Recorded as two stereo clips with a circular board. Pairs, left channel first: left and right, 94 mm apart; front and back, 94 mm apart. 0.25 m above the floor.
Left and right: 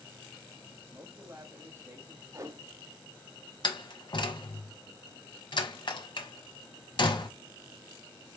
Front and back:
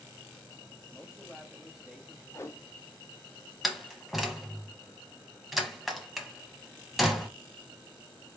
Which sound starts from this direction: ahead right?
A whoosh, at 2.3 s.